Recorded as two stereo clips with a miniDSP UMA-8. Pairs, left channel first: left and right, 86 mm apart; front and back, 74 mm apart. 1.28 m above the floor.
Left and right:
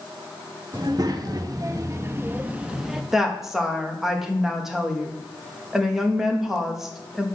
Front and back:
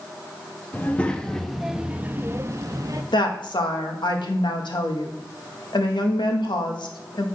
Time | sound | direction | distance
0.7 | a child speaking | 65° right | 0.9 m
3.1 | a woman speaking | 5° right | 1.4 m